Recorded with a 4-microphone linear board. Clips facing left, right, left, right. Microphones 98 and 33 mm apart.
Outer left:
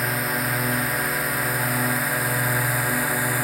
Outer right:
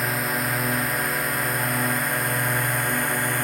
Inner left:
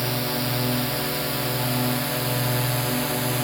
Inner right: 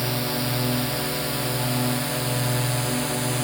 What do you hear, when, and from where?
0.0 s a drone: centre (ahead or behind); by 3.5 s 5° left (ahead or behind)